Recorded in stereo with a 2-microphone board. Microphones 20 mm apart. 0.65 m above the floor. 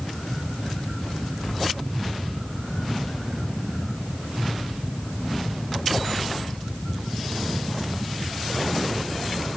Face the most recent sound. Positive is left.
No sound to turn to.